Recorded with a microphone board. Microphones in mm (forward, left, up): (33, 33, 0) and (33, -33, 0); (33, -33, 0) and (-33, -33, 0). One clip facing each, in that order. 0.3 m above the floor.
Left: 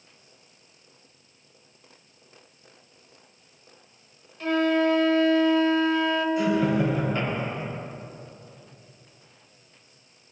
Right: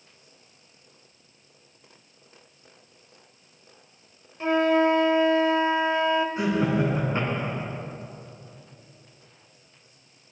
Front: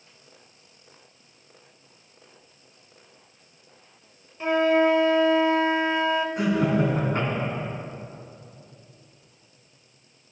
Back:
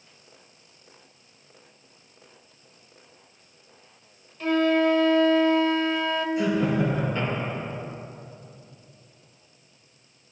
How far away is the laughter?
About 3 m.